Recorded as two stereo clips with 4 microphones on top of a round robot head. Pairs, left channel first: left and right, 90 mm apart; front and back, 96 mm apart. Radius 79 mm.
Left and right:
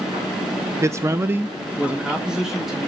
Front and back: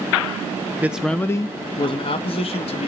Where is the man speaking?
120° right, 0.5 m; by 2.9 s straight ahead, 1.5 m.